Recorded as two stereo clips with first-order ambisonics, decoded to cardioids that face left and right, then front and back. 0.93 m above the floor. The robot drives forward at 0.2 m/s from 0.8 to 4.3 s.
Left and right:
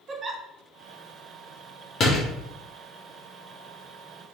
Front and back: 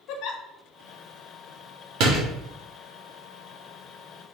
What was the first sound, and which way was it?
A giggle, 20° right.